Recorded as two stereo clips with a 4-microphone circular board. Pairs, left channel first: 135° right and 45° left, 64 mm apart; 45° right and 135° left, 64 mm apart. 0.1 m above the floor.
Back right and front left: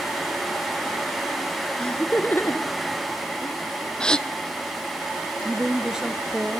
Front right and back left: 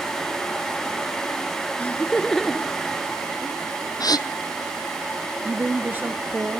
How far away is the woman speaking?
About 1.3 m.